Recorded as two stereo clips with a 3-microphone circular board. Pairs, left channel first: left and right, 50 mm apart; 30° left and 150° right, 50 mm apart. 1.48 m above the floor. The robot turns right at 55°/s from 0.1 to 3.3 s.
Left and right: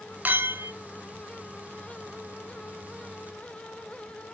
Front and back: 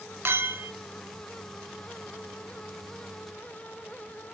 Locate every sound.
0.2 s a clink: 135° right, 0.6 m; by 0.7 s 110° right, 0.6 m